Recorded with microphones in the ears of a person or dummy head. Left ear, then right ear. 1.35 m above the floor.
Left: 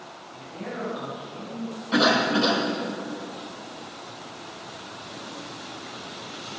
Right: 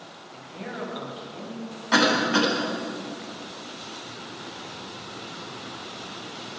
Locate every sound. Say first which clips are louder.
0.3 s a man speaking: left 1 dB; 25° right (ahead or behind), 8 m
1.9 s a cough: even; 50° right (ahead or behind), 9 m